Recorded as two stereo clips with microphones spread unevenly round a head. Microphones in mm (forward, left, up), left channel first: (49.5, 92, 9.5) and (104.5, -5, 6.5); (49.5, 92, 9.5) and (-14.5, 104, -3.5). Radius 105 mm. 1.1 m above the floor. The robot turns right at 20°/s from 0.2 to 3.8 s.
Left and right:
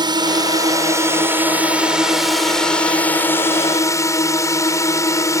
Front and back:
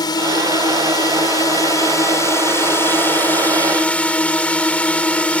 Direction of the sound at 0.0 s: 15° right.